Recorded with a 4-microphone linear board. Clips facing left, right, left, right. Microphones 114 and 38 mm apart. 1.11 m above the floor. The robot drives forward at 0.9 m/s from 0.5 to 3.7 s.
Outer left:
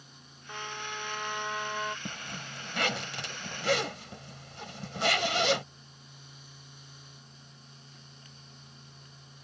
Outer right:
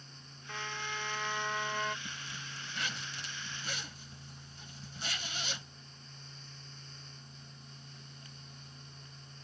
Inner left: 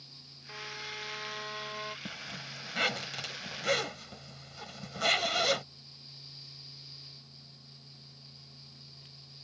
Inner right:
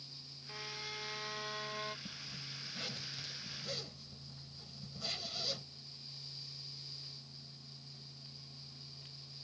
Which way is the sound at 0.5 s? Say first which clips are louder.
Outer left 2 dB, inner left 4 dB; 15° left (ahead or behind).